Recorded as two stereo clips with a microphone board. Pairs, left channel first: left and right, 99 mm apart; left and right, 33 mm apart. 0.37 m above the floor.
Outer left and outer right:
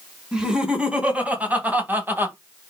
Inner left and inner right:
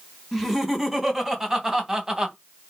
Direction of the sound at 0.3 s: 5° right (ahead or behind).